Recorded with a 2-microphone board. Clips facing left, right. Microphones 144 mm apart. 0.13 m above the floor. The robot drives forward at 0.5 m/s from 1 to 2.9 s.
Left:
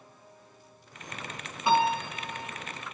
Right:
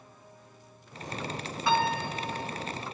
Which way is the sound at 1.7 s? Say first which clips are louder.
Left 2 dB; 20° left (ahead or behind).